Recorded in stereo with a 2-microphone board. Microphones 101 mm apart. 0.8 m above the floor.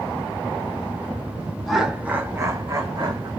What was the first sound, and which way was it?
Laughter, centre (ahead or behind).